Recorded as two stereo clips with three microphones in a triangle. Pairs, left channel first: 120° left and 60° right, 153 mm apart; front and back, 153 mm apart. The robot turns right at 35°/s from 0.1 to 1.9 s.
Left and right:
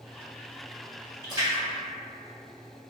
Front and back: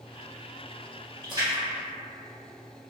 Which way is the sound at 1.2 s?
125° right.